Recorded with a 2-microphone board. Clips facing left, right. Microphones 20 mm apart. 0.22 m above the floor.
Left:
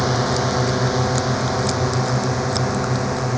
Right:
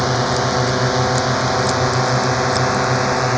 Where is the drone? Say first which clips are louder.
Right 2 dB; 15° right (ahead or behind); by 3.4 s 40° right (ahead or behind).